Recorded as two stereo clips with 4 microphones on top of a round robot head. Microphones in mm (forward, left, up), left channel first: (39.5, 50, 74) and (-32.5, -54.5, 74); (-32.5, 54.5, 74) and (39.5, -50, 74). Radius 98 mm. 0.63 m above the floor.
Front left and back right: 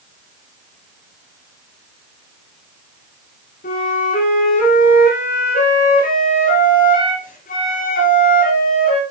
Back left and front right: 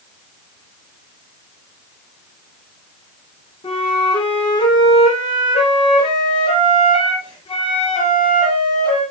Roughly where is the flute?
Left.